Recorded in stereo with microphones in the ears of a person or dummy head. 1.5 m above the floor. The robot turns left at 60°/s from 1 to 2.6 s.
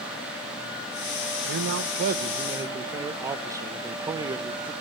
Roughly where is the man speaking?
Right.